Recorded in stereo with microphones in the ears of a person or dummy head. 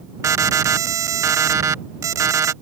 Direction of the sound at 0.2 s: 25° right (ahead or behind).